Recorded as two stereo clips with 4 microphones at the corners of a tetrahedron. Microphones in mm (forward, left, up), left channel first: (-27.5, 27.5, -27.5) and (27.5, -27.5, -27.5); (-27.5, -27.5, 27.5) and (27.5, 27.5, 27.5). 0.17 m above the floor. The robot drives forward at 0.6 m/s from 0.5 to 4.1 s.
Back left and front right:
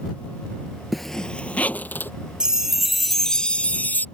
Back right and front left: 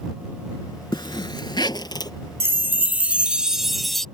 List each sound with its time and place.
0.9 s a zipper: 135° right; by 2.1 s 160° right
2.4 s a chime: 25° left; by 4.0 s 145° left